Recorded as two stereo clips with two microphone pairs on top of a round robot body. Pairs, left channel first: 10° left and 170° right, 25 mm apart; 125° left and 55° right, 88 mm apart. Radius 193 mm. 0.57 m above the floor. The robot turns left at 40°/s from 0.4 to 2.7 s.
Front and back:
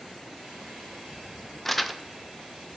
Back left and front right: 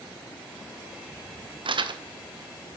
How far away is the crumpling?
About 0.7 m.